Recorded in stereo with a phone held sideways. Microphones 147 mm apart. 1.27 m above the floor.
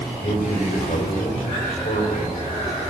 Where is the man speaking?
60° left (ahead or behind), 5 m.